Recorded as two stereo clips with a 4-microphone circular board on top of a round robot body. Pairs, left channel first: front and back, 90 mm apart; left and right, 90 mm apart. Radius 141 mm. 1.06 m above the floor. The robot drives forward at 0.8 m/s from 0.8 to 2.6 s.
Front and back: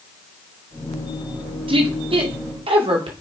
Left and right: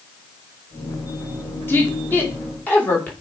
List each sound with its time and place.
1.7 s a woman speaking: 160° left, 2.5 m; by 3.1 s 165° left, 3 m